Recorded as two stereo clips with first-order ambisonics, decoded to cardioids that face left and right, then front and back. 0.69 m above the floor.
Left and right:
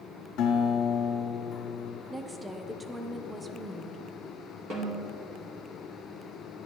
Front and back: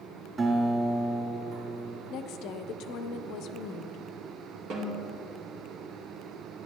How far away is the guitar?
About 1.7 m.